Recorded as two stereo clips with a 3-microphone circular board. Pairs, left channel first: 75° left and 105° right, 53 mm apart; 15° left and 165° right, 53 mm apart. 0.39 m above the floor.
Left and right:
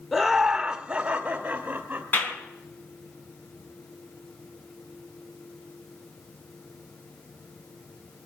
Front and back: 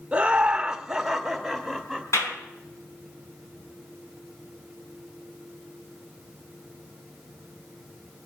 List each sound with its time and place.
0.1 s laughter: 160° left, 1.1 m; by 2.4 s 60° right, 1.8 m
2.1 s a clap: 20° left, 3.5 m